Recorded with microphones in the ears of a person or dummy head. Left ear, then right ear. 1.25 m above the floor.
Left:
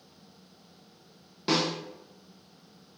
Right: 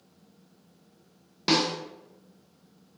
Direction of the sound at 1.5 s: 20° right (ahead or behind).